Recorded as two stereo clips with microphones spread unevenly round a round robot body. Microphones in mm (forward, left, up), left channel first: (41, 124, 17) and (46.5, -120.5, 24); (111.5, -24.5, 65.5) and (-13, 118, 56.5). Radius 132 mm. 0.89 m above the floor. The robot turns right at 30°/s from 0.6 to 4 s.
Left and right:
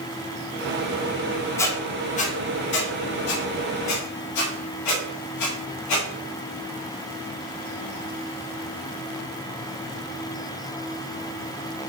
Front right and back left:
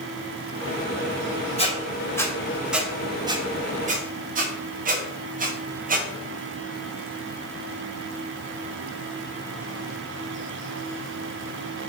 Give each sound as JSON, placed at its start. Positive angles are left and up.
{"t": 1.6, "sound": "a squeak", "azimuth_deg": 10, "distance_m": 1.6}